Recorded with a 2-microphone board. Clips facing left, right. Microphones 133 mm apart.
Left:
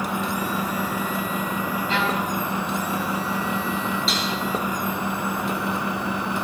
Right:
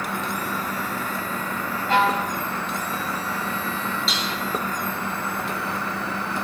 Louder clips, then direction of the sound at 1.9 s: Right 6 dB; 45° right (ahead or behind).